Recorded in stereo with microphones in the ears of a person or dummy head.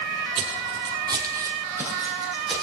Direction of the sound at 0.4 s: 35° right (ahead or behind).